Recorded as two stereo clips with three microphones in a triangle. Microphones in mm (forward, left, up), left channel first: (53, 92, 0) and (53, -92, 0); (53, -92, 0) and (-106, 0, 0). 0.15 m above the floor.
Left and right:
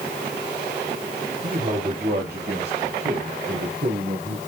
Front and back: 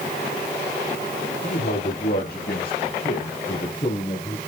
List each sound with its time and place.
1.4 s a man speaking: 55° right, 4.5 m; by 4.4 s 100° right, 4 m